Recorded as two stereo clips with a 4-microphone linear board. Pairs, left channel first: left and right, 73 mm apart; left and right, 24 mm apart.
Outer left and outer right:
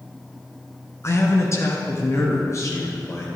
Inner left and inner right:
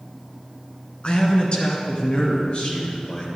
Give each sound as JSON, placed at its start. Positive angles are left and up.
{"t": 1.0, "sound": "a man speaking", "side_deg": 40, "distance_m": 1.7}